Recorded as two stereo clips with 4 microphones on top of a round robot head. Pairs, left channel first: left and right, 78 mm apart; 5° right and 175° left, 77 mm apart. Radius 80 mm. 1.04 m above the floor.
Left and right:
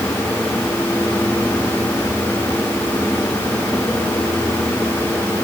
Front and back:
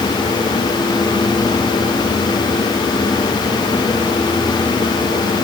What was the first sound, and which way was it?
Only background noise.